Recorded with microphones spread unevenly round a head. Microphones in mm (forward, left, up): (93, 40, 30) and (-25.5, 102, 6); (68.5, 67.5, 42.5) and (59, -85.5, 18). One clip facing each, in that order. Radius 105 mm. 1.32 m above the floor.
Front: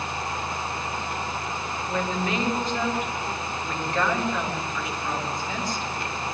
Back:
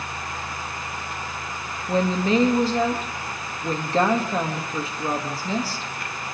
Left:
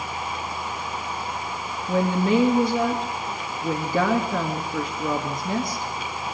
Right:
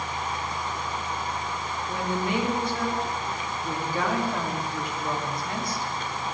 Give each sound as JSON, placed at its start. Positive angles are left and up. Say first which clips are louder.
{"t": 1.9, "sound": "a woman speaking", "louder": "back 7 dB, left 8 dB", "azimuth_deg": 100, "distance_m": 2.5}